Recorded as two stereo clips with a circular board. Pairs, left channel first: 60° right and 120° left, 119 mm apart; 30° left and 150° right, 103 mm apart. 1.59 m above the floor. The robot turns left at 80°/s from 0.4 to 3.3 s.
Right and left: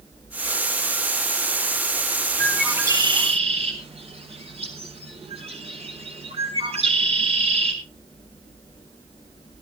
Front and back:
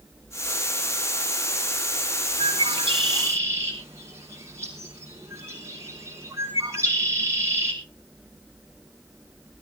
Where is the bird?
140° right, 5.5 m; by 7.7 s 150° left, 5.5 m.